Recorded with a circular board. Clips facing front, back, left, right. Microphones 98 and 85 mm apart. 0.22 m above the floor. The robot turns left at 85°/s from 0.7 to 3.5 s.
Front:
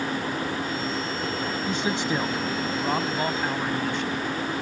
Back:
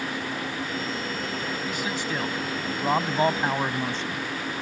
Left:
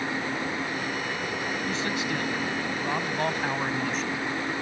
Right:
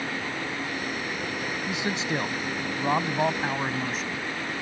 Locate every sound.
1.7 s a man speaking: 20° right; by 4.2 s 175° right